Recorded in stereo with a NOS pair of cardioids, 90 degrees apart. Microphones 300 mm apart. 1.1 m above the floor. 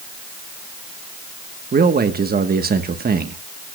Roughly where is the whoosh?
I don't hear a whoosh.